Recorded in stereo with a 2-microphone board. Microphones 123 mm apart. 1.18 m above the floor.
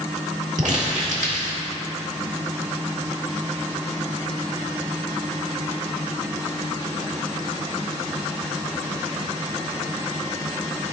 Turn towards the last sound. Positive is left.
turn(degrees=-75)  # may be behind; listen again after turning